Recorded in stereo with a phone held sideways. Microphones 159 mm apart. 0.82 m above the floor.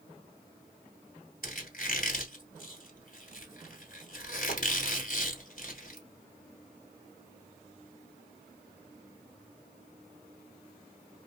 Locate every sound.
1.4 s a squeak: 60° left (ahead or behind), 1.6 m